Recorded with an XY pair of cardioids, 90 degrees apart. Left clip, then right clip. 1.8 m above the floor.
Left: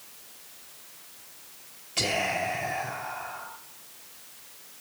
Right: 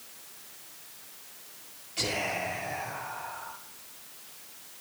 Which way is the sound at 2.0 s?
65° left.